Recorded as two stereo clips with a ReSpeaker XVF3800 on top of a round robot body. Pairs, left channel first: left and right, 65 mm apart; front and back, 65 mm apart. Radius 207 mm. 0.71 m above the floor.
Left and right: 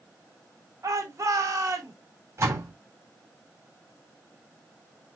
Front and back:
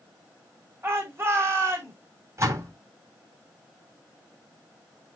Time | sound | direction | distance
0.8 | a shout | 130° right | 6.5 m
2.4 | a door slam | 135° right | 7.5 m